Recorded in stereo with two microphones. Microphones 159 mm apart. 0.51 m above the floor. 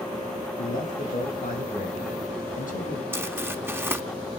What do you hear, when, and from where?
0.6 s a man speaking: 55° left (ahead or behind), 4.5 m
3.1 s crumpling: 15° right (ahead or behind), 1.0 m